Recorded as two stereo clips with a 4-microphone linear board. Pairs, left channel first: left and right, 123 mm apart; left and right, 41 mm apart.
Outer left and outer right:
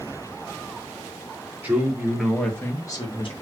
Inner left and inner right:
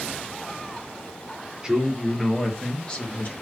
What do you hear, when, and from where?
1.6 s a man speaking: 15° right (ahead or behind), 2 m; by 3.3 s 45° left (ahead or behind), 1.4 m